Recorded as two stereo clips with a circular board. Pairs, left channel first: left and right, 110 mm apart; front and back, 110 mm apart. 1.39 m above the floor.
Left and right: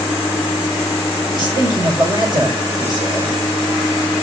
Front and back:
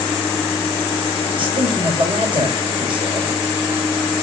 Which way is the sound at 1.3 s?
140° right.